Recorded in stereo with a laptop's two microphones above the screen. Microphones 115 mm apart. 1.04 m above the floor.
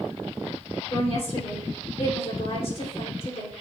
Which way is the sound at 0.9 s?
60° left (ahead or behind).